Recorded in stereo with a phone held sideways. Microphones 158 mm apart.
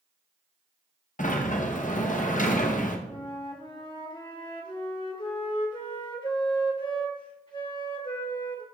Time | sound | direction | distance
1.2 | a sliding door | 55° left (ahead or behind) | 0.8 m
3.1 | a flute | 30° left (ahead or behind) | 1.3 m